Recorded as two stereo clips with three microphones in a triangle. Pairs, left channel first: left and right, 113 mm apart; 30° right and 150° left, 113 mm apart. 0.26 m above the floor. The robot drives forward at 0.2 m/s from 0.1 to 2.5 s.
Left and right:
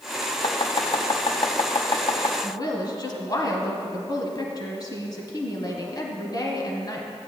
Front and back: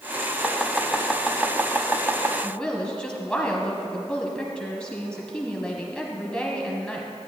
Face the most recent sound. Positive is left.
turn(degrees=50)